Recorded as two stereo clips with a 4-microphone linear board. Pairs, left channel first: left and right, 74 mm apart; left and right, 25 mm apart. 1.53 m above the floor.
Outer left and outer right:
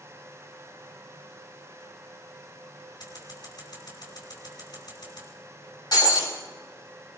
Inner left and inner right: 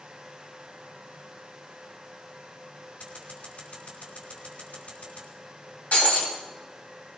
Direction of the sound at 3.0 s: 70° left (ahead or behind).